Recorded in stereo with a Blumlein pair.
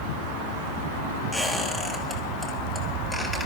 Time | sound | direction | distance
1.3 | a squeak | 5° right | 2.5 m